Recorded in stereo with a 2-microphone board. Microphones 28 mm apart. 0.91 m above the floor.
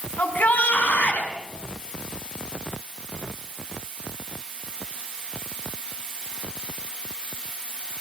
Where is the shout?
75° left (ahead or behind), 7 m.